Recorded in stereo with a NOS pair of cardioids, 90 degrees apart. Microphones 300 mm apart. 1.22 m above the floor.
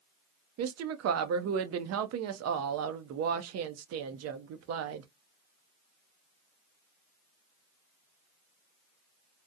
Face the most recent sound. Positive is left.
turn(degrees=-55)